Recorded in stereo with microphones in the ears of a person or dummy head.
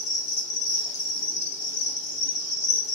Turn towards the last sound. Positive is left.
turn(degrees=60)  # may be behind; listen again after turning